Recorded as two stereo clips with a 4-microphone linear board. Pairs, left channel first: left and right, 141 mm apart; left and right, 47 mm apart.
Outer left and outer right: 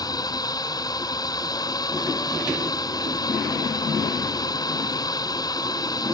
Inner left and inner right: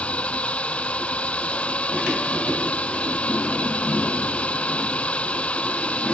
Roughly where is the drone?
Left.